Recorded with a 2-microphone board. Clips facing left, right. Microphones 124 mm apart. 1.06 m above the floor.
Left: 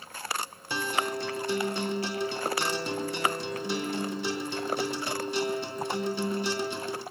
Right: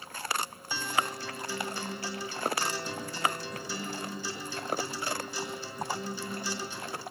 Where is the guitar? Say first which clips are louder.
Left 3 dB; 80° left, 4 m.